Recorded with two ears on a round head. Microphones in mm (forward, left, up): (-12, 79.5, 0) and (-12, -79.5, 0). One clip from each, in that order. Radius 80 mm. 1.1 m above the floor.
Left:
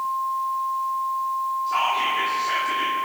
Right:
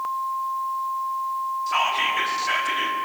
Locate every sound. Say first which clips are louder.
1.7 s whispering: right 1 dB; 60° right (ahead or behind), 2.0 m